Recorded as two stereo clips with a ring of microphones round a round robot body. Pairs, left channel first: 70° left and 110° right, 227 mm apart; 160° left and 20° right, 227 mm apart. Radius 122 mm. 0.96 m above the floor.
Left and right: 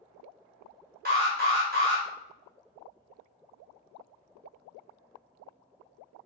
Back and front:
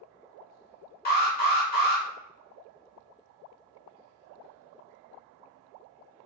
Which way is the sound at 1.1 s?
160° right.